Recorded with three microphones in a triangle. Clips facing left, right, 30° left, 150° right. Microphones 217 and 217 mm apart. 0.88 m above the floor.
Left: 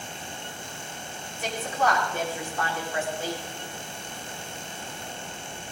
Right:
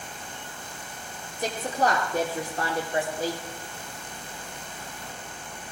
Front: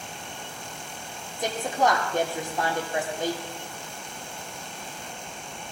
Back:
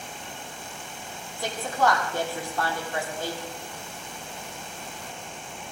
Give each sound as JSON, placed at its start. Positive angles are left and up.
{"t": 1.4, "sound": "a woman speaking", "azimuth_deg": -40, "distance_m": 2.5}